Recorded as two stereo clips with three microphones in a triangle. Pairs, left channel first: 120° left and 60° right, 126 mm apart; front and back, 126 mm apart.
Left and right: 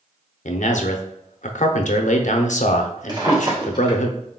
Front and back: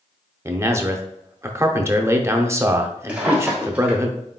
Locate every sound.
0.5 s a man speaking: 110° left, 0.6 m
3.1 s a drawer: 105° right, 1.3 m